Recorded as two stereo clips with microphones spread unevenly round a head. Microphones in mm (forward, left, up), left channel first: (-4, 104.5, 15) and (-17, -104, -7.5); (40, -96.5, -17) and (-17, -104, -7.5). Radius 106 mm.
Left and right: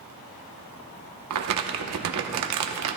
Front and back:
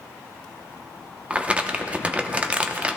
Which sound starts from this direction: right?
Crumpling, at 1.3 s.